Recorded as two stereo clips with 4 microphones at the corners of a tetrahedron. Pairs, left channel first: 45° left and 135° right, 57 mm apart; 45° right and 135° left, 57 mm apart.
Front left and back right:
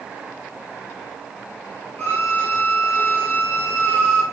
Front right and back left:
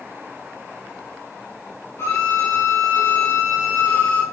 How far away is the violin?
About 1.4 m.